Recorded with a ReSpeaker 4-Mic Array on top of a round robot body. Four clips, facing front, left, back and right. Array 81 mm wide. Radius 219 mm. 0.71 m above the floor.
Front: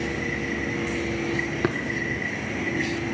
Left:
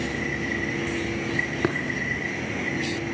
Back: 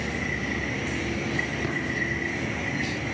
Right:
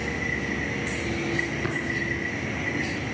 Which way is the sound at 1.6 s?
50° left.